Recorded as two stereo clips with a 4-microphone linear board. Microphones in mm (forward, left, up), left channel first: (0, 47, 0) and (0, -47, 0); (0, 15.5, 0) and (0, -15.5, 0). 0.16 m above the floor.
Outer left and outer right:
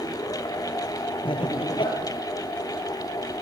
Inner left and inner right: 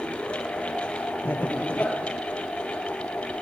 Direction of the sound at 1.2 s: 65° left (ahead or behind).